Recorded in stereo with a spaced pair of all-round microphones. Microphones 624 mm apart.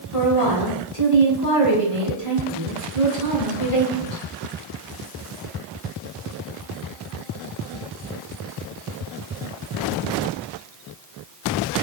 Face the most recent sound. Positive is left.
turn(degrees=55)  # may be behind; listen again after turning